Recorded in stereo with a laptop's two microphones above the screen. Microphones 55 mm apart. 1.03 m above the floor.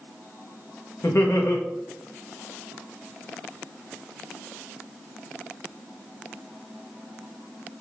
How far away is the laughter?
About 0.6 m.